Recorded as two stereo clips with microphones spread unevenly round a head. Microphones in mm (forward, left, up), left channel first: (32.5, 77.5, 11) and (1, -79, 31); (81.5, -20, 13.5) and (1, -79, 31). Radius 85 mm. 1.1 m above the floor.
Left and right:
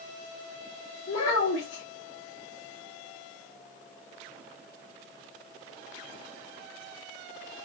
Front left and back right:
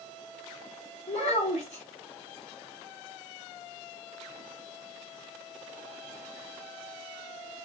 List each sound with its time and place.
1.1 s a child speaking: 65° left, 1.1 m